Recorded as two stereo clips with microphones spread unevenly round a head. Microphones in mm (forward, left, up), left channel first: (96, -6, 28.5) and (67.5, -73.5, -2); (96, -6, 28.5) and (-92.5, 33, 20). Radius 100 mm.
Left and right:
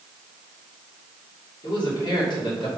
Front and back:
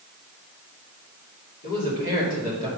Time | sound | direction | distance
1.6 | a man speaking | 35° left | 3 m